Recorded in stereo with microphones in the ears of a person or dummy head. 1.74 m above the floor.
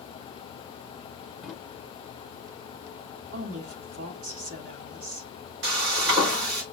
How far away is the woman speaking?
About 3.5 m.